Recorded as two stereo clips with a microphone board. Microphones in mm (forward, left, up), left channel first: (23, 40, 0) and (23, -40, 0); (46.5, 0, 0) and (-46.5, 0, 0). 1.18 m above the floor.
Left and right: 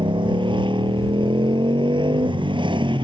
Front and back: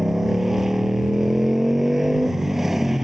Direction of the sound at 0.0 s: 95° right.